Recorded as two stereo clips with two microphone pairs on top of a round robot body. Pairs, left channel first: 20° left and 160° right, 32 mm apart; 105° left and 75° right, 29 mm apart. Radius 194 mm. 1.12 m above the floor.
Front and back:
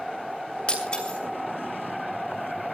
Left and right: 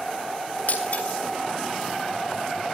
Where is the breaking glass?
80° left, 2.5 m.